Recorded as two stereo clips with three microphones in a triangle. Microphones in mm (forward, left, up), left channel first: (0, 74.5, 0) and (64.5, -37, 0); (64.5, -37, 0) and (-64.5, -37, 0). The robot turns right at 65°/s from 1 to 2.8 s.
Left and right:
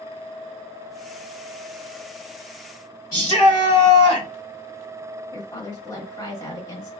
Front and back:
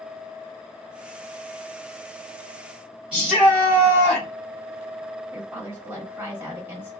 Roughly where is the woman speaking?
Behind left.